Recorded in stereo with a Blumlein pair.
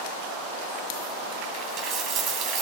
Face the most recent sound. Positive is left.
turn(degrees=-30)